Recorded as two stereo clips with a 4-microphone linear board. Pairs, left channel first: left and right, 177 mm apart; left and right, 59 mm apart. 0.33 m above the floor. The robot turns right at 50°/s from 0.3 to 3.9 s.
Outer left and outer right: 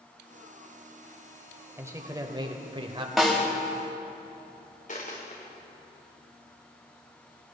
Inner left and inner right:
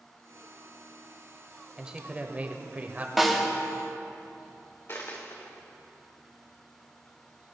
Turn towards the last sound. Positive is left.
turn(degrees=45)  # may be behind; listen again after turning